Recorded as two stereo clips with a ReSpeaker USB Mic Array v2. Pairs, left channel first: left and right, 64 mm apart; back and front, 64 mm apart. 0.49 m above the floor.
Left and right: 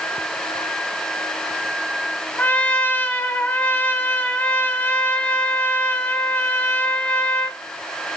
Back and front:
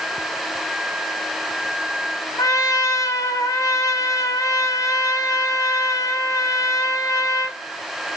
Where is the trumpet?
155° left, 2.5 m.